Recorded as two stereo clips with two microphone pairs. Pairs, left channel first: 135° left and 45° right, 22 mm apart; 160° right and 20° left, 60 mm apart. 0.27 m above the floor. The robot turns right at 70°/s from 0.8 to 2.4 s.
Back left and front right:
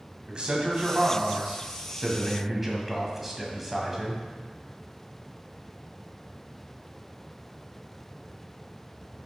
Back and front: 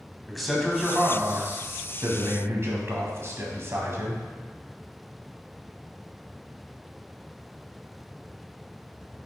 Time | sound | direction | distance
0.3 | a man speaking | 70° right | 1.5 m